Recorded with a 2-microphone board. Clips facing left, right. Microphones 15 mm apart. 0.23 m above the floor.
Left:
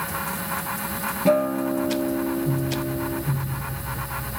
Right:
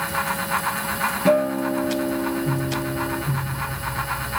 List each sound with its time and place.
1.2 s a guitar: 15° right (ahead or behind), 0.8 m